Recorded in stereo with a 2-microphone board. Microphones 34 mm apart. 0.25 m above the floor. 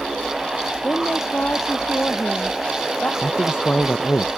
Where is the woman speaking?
50° left (ahead or behind).